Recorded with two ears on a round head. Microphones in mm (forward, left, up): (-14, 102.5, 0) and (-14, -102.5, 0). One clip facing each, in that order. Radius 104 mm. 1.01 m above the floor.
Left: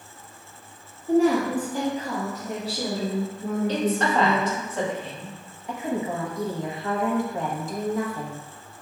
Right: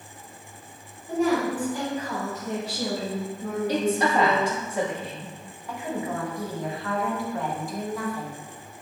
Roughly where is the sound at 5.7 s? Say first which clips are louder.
Left 3 dB; centre.